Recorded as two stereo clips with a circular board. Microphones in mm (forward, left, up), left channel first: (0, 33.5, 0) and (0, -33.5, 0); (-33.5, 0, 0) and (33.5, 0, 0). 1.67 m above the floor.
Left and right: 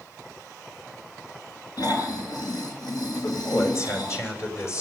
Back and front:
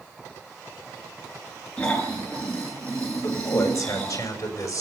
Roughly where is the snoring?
Left.